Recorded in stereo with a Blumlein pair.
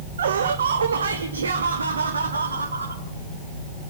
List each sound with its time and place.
0.2 s laughter: 65° right, 1.2 m; by 3.0 s 75° right, 3.5 m